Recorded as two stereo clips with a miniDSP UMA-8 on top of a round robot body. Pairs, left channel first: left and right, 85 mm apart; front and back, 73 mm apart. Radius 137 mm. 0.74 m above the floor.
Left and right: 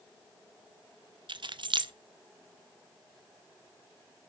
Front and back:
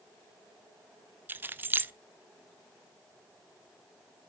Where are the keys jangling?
115° right, 0.6 m.